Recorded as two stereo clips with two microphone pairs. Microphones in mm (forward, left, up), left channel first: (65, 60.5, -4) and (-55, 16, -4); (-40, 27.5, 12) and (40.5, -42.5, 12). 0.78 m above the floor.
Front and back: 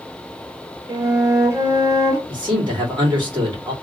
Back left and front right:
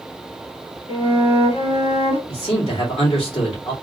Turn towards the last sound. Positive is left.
turn(degrees=150)